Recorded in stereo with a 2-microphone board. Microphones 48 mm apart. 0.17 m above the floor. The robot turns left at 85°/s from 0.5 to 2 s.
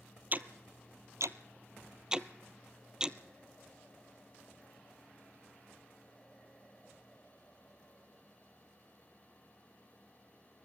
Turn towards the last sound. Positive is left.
turn(degrees=-15)  # may be behind; listen again after turning